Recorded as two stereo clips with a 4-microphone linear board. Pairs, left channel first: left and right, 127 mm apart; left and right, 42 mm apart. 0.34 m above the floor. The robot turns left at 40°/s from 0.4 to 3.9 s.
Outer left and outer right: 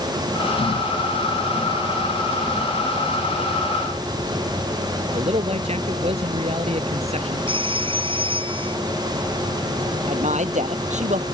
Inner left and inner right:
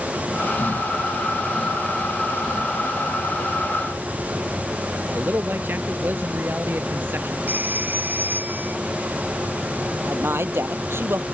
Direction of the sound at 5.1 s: 55° right (ahead or behind).